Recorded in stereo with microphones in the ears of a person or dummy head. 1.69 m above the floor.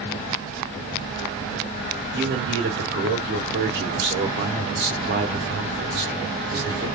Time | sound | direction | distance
2.1 | a man speaking | 55° right (ahead or behind) | 0.8 m